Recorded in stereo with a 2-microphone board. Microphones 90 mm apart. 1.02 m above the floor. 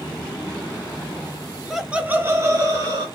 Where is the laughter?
Centre (ahead or behind), 0.5 m; by 3.0 s 45° right (ahead or behind), 0.8 m.